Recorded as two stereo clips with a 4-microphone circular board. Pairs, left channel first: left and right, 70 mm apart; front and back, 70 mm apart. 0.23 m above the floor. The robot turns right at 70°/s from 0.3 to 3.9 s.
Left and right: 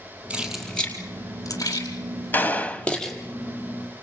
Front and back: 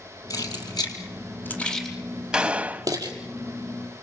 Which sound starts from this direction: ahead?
Keys jangling, at 0.3 s.